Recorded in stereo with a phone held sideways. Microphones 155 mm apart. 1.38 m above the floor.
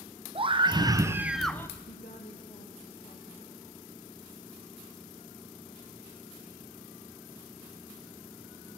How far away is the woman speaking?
About 1.8 m.